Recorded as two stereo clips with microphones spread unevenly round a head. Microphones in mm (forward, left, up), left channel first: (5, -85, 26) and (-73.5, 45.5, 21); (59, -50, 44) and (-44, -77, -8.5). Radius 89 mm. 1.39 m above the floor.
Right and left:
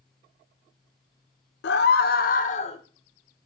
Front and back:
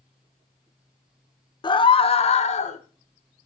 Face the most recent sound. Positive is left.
turn(degrees=0)